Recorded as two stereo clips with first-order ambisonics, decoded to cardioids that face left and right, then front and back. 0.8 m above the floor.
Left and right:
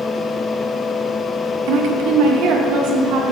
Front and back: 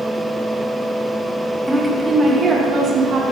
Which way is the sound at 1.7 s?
95° right.